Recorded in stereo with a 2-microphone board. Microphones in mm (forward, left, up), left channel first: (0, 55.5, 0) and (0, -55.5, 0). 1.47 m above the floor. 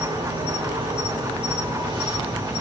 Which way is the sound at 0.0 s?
50° right (ahead or behind).